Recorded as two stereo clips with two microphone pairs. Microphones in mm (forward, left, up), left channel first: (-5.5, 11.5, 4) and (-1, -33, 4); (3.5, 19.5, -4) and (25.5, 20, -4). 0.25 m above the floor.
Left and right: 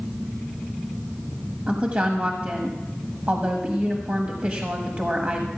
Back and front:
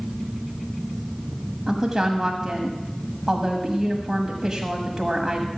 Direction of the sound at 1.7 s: 60° right.